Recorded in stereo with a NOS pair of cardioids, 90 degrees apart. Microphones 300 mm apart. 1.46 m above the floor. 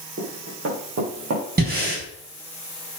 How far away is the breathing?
About 4.5 m.